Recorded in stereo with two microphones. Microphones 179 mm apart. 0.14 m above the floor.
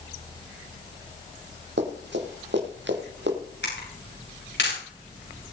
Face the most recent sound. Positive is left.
turn(degrees=85)